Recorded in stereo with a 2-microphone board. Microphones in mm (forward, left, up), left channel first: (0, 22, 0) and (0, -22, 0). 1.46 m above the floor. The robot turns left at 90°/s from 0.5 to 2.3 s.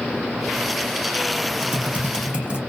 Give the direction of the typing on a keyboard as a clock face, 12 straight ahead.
2 o'clock.